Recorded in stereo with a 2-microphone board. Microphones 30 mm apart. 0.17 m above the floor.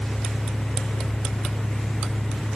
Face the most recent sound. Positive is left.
No sound to turn to.